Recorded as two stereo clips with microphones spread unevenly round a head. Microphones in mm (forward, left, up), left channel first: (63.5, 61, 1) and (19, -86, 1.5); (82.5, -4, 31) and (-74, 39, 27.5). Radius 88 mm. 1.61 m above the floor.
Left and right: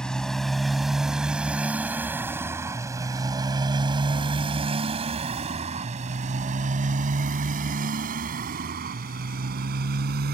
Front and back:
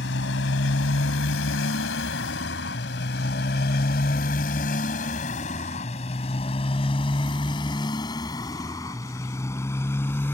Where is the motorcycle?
10° right; by 10.3 s 95° right.